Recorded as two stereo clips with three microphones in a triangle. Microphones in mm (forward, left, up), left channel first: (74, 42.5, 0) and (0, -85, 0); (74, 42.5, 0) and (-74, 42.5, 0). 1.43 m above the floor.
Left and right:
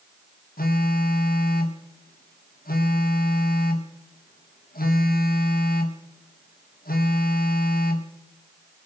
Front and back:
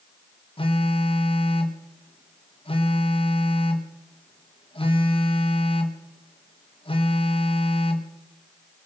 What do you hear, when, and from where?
0.6 s a phone buzzing: 55° left, 1.6 m